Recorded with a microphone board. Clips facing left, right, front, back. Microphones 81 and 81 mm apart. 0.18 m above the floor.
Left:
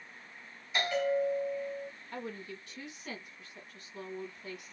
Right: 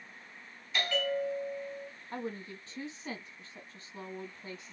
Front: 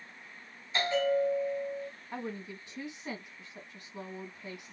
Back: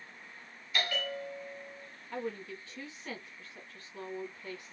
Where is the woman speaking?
60° right, 1.3 m.